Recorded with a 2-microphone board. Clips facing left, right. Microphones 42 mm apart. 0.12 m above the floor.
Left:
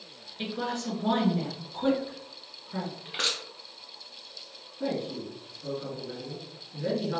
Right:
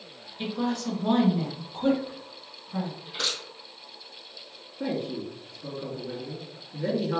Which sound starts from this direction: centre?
A man speaking, at 4.8 s.